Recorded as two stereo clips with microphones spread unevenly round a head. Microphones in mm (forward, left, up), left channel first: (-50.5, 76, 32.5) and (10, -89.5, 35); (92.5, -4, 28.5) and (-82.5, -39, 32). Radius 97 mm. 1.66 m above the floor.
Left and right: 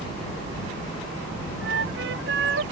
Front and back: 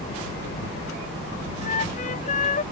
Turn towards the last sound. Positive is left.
turn(degrees=-35)